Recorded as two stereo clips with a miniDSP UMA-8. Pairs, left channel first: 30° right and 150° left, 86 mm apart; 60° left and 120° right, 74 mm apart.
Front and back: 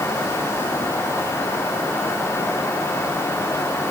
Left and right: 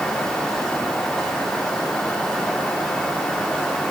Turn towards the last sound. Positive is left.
No sound to turn to.